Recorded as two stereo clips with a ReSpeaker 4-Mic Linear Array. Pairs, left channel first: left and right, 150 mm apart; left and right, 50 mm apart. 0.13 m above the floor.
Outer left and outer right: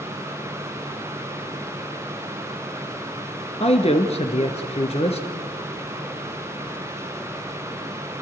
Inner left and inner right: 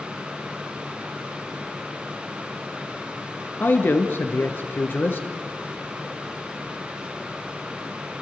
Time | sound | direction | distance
3.6 | a man speaking | 45° left (ahead or behind) | 1.6 m